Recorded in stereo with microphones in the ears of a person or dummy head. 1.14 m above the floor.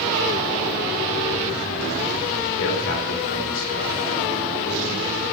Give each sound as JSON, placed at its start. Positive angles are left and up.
{"t": 2.6, "sound": "a man speaking", "side_deg": 70, "distance_m": 2.0}